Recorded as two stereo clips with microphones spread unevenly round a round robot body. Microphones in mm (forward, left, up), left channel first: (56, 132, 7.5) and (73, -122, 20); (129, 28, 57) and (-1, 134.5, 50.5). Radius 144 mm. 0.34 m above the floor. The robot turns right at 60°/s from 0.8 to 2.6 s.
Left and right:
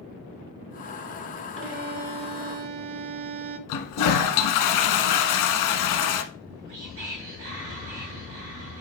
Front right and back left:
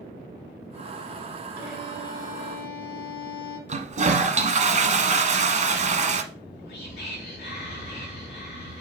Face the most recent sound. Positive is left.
turn(degrees=-45)